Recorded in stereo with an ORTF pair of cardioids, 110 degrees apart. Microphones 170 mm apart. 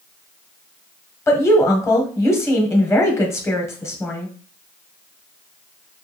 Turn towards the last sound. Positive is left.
turn(degrees=15)